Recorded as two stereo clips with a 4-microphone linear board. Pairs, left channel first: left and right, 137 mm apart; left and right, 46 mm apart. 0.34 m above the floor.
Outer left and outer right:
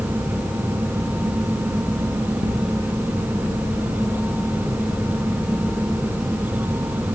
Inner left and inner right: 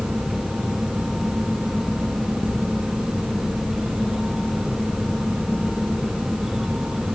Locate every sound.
Only background noise.